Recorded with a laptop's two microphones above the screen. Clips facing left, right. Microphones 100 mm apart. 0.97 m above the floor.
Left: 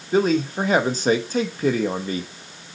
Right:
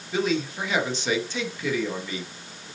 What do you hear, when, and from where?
0.1 s a man speaking: 40° left (ahead or behind), 1.2 m